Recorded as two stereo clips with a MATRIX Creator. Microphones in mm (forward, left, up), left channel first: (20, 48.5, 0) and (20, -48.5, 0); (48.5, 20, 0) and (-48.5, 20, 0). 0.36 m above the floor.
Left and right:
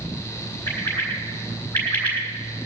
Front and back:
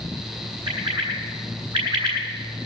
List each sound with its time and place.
0.7 s a bird: 160° left, 2.5 m